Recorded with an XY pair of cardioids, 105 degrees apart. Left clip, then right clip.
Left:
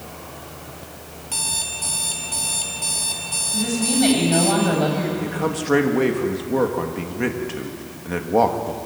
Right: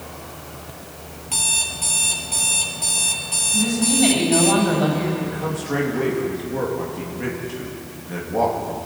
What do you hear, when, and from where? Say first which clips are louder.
1.3 s an alarm clock: right 4 dB; 10° right, 3.5 m
3.5 s a woman speaking: right 1 dB; 15° left, 10 m
5.2 s a man speaking: left 3 dB; 50° left, 3 m